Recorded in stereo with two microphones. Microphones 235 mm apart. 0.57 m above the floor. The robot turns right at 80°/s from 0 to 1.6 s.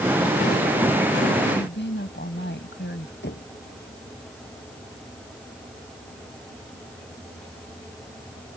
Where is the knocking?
50° left (ahead or behind).